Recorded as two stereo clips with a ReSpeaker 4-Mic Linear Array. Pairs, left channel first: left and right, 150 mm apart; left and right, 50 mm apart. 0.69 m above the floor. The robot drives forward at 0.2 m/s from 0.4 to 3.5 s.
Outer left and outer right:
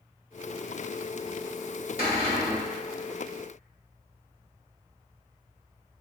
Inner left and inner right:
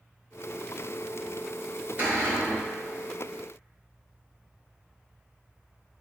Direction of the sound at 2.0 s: 40° right (ahead or behind).